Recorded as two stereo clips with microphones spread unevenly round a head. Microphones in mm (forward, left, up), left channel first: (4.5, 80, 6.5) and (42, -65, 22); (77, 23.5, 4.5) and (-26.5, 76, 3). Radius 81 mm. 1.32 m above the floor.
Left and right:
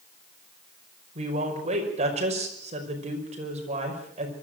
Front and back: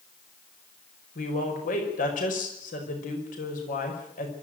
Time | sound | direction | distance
1.1 | a woman speaking | 30° right | 5.5 m